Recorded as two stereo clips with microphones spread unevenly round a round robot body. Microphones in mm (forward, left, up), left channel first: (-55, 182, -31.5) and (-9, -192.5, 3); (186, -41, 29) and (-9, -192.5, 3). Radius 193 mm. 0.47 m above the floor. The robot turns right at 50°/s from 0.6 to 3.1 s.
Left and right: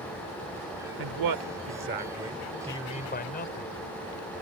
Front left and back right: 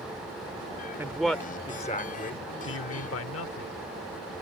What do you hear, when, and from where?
1.0 s a man speaking: 65° right; by 3.8 s 40° left